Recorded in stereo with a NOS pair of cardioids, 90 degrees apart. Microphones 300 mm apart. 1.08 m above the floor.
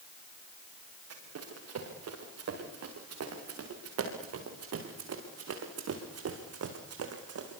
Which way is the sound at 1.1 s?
55° right.